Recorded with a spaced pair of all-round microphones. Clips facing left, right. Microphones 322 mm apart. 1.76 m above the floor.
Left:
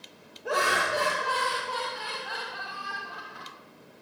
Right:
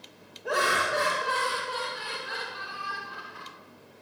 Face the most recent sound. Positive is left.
turn(degrees=-35)  # may be behind; listen again after turning